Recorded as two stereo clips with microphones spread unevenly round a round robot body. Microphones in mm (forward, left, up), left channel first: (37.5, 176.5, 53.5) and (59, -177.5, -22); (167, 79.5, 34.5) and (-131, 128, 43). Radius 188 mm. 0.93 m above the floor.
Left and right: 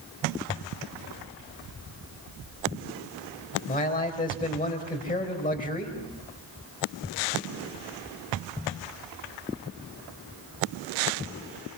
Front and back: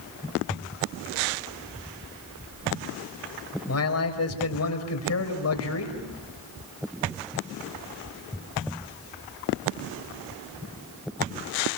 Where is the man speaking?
25° left, 4.5 m.